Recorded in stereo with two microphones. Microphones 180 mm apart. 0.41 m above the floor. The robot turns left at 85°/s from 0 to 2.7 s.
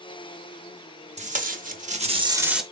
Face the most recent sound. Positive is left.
turn(degrees=175)